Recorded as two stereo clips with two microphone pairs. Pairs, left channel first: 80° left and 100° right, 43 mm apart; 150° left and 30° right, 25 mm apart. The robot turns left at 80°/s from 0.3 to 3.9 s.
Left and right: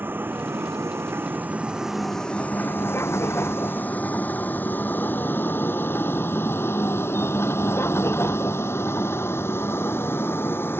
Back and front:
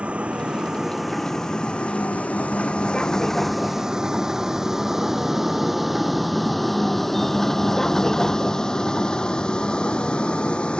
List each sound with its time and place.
0.0 s a vehicle: 60° right; by 10.8 s 110° left